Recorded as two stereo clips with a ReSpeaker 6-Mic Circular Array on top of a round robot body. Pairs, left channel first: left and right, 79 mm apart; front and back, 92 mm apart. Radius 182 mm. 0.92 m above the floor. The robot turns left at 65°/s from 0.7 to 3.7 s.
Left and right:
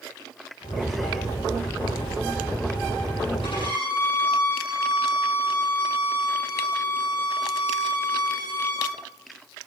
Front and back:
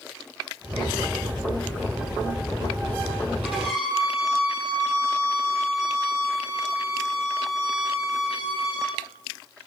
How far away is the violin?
About 9 m.